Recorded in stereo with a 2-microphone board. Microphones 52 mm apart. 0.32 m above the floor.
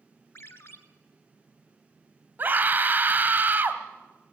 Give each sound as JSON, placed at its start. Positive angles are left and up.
{"t": 0.3, "sound": "a ringtone", "side_deg": 50, "distance_m": 1.6}
{"t": 2.4, "sound": "a scream", "side_deg": -35, "distance_m": 1.8}